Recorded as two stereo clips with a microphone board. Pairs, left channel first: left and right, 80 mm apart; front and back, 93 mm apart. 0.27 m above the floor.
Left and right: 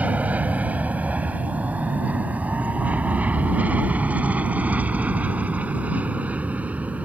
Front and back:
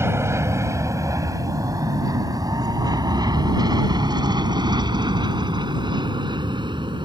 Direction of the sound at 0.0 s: 145° right.